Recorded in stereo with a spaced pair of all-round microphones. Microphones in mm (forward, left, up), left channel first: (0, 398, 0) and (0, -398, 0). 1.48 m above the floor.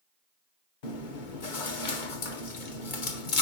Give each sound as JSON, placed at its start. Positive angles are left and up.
{"t": 0.8, "sound": "chewing", "side_deg": 75, "distance_m": 1.2}